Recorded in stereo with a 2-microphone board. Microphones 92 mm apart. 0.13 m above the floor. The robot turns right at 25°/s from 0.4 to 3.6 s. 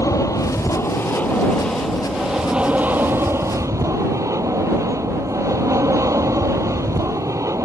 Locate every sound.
0.0 s an aircraft: 140° left; by 7.7 s 140° right